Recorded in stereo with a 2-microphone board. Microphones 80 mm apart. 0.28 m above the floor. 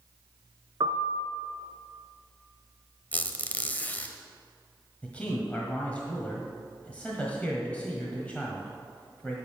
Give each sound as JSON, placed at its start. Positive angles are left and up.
{"t": 0.8, "sound": "a piano", "side_deg": -60, "distance_m": 0.8}
{"t": 3.1, "sound": "a squeak", "side_deg": 20, "distance_m": 0.8}
{"t": 5.0, "sound": "a man speaking", "side_deg": 15, "distance_m": 1.5}